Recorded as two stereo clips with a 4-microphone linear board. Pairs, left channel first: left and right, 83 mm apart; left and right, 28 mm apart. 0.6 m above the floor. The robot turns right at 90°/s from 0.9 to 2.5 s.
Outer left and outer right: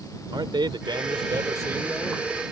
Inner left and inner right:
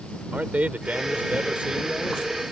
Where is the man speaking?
105° right; by 2.2 s 15° left.